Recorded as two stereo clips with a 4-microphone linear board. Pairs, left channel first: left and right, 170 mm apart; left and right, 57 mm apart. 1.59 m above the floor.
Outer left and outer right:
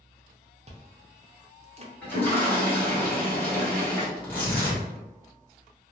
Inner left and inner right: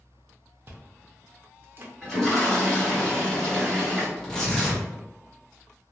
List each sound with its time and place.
0.7 s chewing: 40° right (ahead or behind), 0.5 m
2.0 s a toilet flushing: 10° left (ahead or behind), 1.5 m
4.2 s tearing paper: 10° left (ahead or behind), 1.3 m